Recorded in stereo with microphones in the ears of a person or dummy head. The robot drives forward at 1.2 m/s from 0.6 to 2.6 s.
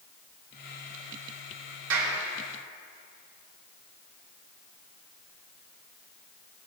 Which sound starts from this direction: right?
A clap, at 1.9 s.